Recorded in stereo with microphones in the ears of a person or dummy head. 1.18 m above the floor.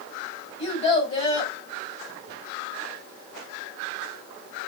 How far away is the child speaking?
About 4.5 m.